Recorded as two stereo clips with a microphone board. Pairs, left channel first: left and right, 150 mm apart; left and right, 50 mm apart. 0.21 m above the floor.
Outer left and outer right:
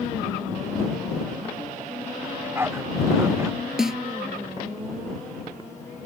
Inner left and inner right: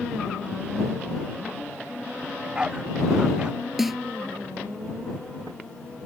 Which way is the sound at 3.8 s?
5° right (ahead or behind).